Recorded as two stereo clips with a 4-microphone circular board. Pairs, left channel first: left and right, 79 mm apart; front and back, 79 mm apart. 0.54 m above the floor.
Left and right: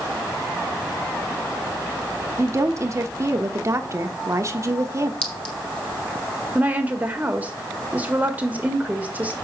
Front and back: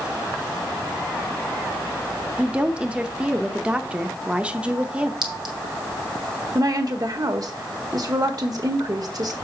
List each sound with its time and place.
2.4 s a woman speaking: 110° right, 0.9 m
5.2 s a clink: 165° left, 1.7 m
6.5 s a woman speaking: 155° right, 1.6 m